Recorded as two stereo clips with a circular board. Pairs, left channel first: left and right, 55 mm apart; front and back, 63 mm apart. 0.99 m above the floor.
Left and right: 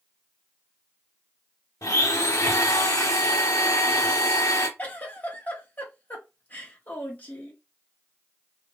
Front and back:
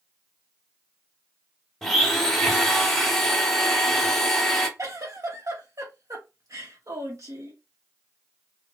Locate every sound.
1.8 s a blender: 85° left, 0.9 m
4.8 s a giggle: 145° left, 1.3 m